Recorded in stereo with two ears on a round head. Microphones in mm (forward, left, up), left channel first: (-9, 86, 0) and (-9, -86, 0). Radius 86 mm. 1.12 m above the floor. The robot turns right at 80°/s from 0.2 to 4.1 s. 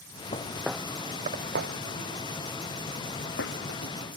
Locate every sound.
0.3 s footsteps: 35° left (ahead or behind); by 4.2 s 50° left (ahead or behind)